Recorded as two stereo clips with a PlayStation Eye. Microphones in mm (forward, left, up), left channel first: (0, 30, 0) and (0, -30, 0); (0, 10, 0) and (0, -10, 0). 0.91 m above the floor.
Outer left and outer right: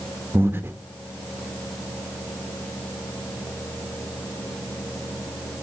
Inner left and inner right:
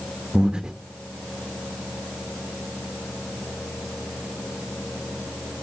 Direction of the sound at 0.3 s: 35° right (ahead or behind).